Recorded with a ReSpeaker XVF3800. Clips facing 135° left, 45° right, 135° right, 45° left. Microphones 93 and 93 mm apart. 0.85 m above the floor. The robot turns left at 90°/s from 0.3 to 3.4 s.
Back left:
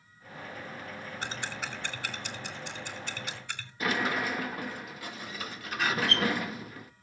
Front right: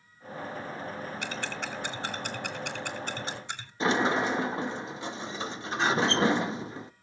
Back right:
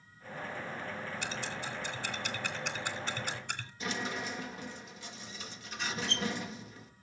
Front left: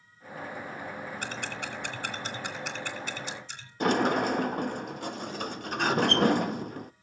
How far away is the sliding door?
About 0.6 m.